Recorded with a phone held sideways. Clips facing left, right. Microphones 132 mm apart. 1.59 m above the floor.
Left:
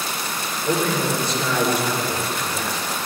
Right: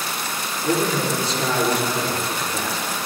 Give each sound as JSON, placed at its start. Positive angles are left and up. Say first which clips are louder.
{"t": 0.6, "sound": "a man speaking", "louder": "even", "side_deg": -85, "distance_m": 5.0}